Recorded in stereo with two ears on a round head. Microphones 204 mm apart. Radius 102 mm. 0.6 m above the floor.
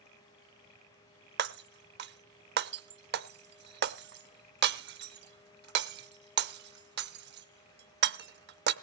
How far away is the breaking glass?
About 0.6 m.